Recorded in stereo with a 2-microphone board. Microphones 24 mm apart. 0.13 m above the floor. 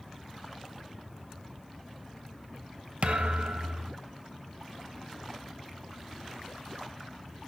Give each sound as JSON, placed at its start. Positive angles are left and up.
{"t": 3.0, "sound": "a thud", "side_deg": -60, "distance_m": 0.6}